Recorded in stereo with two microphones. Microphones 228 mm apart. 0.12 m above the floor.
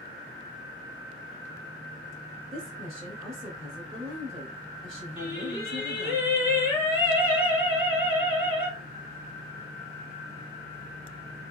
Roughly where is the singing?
Left.